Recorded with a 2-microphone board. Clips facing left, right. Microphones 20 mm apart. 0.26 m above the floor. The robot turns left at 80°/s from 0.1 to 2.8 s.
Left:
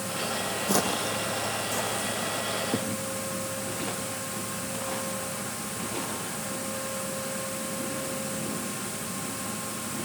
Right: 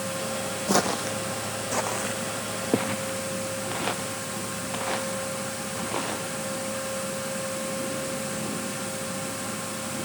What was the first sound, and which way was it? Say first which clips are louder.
Footsteps: right 3 dB; 15° right (ahead or behind).